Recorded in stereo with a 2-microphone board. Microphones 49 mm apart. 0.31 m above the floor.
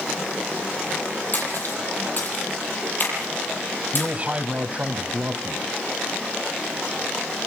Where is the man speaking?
30° right (ahead or behind), 1.7 m.